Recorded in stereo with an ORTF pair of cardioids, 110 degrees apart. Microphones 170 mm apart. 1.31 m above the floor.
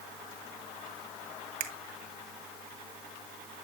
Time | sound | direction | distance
1.6 | a finger snap | 70° right | 1.4 m